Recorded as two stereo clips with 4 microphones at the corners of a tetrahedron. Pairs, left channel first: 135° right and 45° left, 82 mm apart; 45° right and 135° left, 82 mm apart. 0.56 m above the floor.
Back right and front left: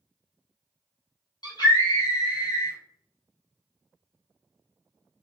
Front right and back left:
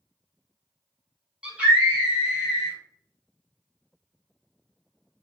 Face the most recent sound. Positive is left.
turn(degrees=-150)